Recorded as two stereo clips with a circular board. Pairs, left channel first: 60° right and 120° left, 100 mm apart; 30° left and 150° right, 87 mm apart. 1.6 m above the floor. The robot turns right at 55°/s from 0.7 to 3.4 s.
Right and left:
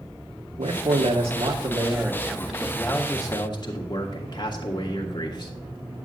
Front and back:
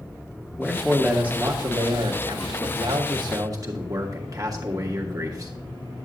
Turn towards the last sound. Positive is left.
turn(degrees=-105)